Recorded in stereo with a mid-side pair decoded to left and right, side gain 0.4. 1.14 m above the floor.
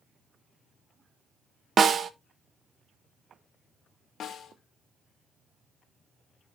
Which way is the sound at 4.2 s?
65° left.